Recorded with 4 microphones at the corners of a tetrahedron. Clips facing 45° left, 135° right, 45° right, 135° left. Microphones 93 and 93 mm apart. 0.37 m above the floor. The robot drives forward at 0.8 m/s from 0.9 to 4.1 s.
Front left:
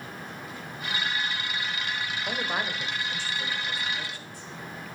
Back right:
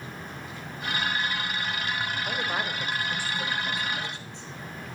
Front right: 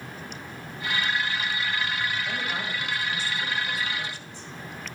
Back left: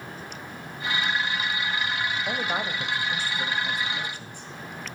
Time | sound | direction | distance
2.3 | a man speaking | 120° left | 1.1 m